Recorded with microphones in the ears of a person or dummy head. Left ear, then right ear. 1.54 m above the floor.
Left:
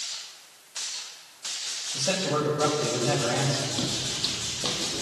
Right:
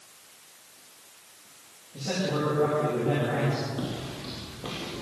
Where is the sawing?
No sawing in this recording.